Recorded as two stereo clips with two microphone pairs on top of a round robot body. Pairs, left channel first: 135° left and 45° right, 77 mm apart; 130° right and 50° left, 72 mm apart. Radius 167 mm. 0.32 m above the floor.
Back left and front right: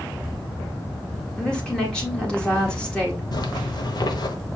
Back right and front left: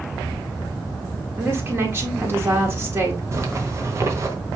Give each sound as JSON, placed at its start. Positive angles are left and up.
{"t": 1.4, "sound": "a woman speaking", "azimuth_deg": 65, "distance_m": 1.5}
{"t": 3.3, "sound": "a zipper", "azimuth_deg": 100, "distance_m": 1.1}